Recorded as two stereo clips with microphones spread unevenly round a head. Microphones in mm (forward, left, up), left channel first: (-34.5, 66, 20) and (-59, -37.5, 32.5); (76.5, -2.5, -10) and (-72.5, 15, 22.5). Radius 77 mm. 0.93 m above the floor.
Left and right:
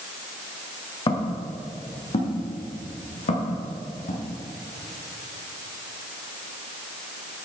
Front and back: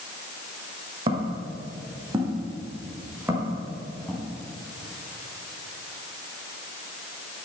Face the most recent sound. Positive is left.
turn(degrees=90)